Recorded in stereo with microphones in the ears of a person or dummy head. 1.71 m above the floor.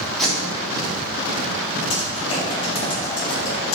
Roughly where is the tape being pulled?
Centre.